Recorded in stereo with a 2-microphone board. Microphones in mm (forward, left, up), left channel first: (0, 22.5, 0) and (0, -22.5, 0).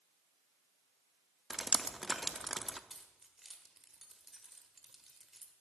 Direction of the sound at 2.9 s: 5° right (ahead or behind).